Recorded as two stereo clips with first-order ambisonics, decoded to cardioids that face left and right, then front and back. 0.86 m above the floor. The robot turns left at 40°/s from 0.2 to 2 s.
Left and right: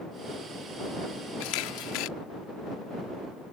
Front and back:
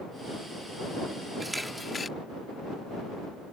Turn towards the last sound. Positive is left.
turn(degrees=75)